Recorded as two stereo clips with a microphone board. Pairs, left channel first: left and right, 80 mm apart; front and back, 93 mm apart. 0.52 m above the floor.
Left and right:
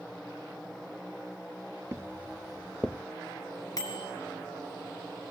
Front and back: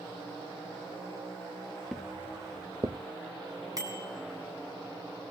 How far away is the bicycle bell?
About 3 m.